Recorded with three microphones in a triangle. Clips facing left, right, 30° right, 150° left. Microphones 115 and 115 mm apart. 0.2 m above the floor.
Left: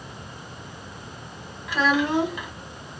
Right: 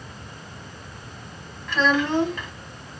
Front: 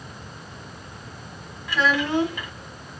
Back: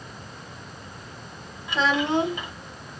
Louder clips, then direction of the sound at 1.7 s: Even, even; 155° left.